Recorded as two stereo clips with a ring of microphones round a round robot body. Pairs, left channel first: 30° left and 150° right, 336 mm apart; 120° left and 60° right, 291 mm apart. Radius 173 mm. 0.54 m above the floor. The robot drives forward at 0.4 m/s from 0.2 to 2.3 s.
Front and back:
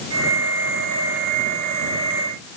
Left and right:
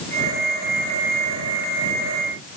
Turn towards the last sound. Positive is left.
No sound to turn to.